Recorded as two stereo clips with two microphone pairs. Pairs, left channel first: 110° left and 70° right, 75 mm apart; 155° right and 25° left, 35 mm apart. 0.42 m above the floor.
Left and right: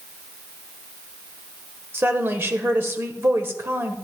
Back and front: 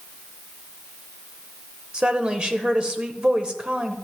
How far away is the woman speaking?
About 1.3 m.